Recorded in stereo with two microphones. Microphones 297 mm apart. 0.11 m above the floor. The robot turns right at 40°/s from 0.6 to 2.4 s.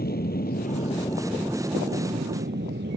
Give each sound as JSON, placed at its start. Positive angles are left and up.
{"t": 0.0, "sound": "an aircraft", "side_deg": 30}